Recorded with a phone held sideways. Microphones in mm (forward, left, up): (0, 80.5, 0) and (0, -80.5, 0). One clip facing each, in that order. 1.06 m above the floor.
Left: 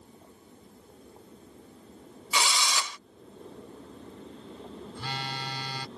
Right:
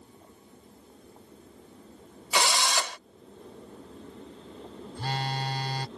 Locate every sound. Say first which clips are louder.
2.3 s a drill: right 3 dB; 70° right (ahead or behind)
5.0 s a phone buzzing: right 6 dB; 50° right (ahead or behind)